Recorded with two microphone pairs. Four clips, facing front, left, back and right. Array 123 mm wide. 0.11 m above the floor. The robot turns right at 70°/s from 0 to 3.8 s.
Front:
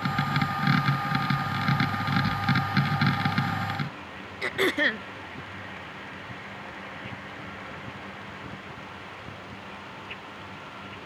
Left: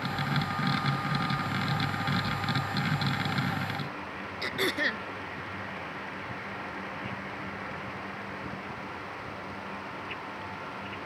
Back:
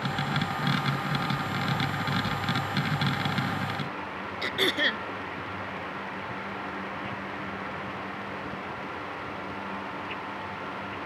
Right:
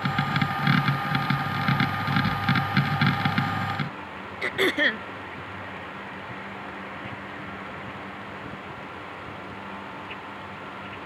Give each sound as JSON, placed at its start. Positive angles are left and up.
{"t": 4.4, "sound": "throat clearing", "azimuth_deg": -70}